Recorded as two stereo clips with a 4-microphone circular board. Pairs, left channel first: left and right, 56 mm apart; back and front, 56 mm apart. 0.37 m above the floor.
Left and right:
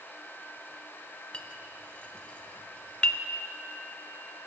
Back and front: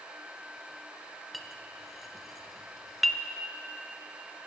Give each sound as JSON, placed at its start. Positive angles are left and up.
{"t": 1.3, "sound": "a clink", "azimuth_deg": 90, "distance_m": 0.6}